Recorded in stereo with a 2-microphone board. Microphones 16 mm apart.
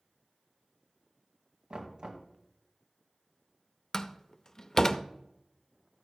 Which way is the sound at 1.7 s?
70° right (ahead or behind).